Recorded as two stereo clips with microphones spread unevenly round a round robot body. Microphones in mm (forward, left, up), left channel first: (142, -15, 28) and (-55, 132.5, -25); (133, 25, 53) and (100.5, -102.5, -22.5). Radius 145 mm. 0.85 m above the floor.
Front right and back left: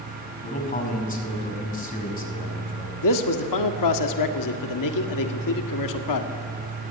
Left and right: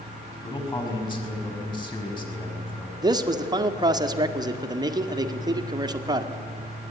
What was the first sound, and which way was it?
A man speaking, 20° left.